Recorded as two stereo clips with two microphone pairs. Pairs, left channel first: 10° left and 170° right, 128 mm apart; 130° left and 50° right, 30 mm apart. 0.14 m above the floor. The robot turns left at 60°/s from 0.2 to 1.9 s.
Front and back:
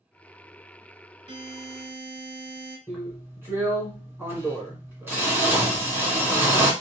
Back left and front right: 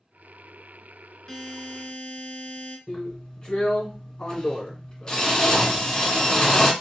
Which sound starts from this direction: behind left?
A drill, at 2.9 s.